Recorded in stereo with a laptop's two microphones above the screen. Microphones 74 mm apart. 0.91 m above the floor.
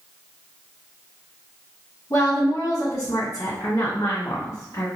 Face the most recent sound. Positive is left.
turn(degrees=50)  # may be behind; listen again after turning